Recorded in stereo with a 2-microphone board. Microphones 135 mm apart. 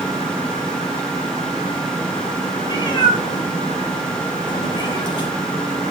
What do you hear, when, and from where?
2.6 s a cat meowing: 30° left (ahead or behind), 4.5 m